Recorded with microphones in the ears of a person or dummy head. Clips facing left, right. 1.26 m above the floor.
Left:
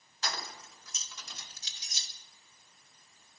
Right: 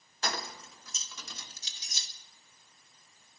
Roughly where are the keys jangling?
Right.